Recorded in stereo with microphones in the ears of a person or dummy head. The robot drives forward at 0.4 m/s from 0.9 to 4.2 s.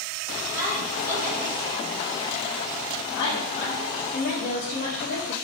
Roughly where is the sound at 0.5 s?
Centre.